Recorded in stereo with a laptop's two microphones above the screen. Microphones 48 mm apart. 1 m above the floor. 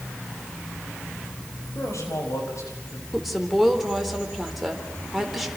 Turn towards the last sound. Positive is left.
turn(degrees=0)  # may be behind; listen again after turning